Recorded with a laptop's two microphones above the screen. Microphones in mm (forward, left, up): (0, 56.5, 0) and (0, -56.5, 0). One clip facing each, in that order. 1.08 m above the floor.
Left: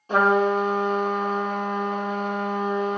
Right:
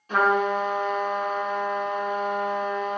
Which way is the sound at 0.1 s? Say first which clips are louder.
Left 3 dB; 30° left (ahead or behind).